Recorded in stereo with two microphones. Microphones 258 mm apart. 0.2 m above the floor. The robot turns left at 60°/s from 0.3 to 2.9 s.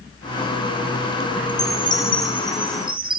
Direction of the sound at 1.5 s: 60° left.